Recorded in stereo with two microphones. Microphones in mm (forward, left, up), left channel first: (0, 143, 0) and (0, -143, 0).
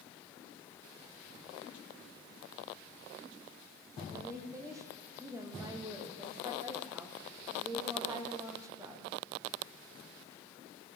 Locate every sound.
4.1 s a woman speaking: 10° right (ahead or behind), 7 m